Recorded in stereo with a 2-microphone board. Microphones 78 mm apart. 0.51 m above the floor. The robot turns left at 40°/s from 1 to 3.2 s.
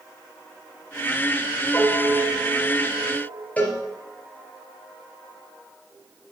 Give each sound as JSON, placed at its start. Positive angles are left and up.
{"t": 1.7, "sound": "a piano", "azimuth_deg": 25, "distance_m": 1.8}
{"t": 3.6, "sound": "a cowbell", "side_deg": 20, "distance_m": 3.0}